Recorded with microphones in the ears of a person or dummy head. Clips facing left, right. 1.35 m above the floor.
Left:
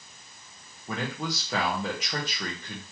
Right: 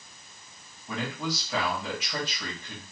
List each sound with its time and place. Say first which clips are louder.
0.9 s a man speaking: even; 45° left (ahead or behind), 1.5 m